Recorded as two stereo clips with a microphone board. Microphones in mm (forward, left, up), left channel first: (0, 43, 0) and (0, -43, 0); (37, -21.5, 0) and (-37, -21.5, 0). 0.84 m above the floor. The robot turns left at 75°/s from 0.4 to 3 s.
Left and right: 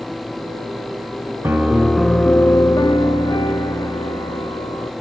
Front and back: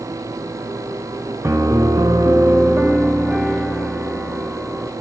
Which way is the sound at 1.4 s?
145° right.